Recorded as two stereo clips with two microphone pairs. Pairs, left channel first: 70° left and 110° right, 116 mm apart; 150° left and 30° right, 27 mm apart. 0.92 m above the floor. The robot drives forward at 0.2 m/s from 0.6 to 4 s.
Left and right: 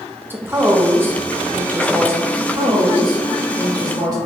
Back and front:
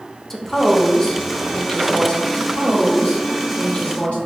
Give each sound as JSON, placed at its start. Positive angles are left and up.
{"t": 0.3, "sound": "a woman speaking", "azimuth_deg": -155, "distance_m": 0.5}
{"t": 2.3, "sound": "a woman speaking", "azimuth_deg": -160, "distance_m": 0.9}